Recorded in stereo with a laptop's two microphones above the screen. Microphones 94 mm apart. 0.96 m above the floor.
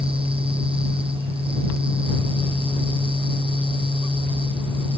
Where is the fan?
70° right (ahead or behind).